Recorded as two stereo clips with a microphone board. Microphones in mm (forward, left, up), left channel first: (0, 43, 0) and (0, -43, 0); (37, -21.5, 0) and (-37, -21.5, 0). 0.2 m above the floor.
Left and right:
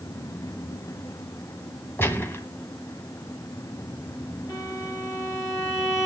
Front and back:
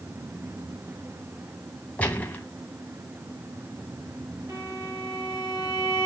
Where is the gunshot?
55° left, 1.7 m.